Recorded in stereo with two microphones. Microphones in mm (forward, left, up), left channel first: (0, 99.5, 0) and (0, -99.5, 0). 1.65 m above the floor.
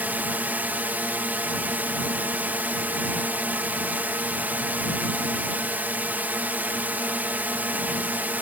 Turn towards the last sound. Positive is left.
turn(degrees=-10)  # may be behind; listen again after turning